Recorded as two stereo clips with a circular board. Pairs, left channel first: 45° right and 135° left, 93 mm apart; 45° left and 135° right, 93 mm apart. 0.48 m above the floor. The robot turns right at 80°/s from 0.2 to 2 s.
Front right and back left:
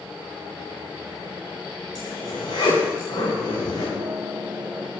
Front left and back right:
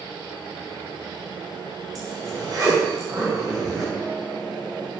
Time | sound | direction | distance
1.9 | a zipper | 90° right | 5 m
4.0 | a guitar | 140° left | 0.7 m